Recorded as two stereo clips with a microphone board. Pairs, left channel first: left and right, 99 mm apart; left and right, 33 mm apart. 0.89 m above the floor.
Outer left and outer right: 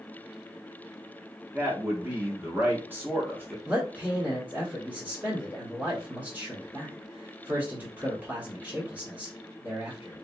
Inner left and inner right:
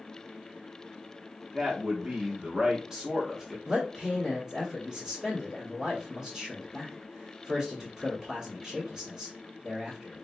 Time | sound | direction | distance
1.5 | a man speaking | 20° right (ahead or behind) | 0.8 m
3.6 | a man speaking | 20° right (ahead or behind) | 1.2 m